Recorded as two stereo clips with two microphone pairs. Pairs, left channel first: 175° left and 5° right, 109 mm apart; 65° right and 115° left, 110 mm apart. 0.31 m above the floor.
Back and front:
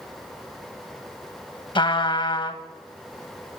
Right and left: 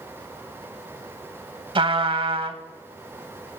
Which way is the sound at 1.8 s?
145° left.